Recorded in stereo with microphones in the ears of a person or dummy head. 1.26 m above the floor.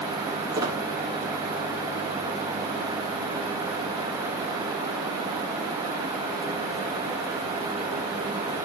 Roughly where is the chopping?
I don't hear chopping.